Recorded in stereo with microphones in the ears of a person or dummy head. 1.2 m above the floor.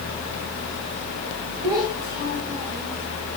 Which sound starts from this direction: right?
A child speaking, at 1.6 s.